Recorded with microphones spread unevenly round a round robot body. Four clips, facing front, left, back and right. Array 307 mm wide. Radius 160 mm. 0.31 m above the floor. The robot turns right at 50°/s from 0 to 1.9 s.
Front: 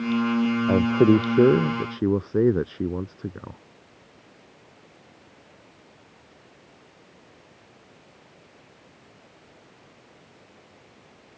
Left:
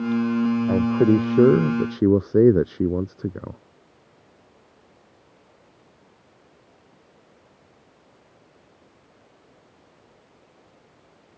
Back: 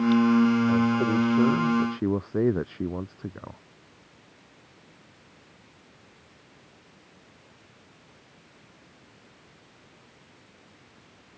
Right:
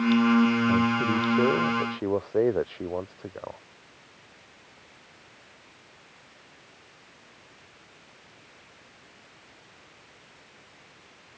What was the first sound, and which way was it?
A man speaking, 20° left.